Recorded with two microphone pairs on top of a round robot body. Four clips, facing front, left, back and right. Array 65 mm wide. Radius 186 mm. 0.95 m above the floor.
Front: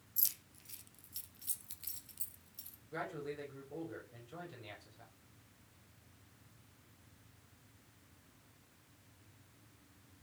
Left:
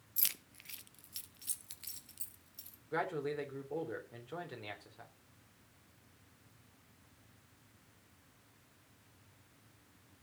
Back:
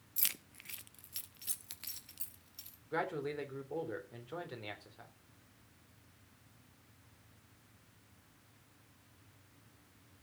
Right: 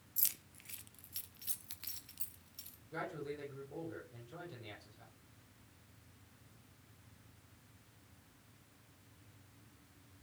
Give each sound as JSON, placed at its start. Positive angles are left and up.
{"t": 0.2, "sound": "keys jangling", "azimuth_deg": 155, "distance_m": 0.7}
{"t": 2.9, "sound": "a man speaking", "azimuth_deg": 135, "distance_m": 4.5}